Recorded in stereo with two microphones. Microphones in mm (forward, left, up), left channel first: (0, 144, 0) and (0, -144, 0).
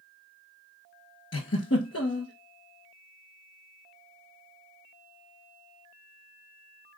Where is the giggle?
55° left (ahead or behind), 0.8 m.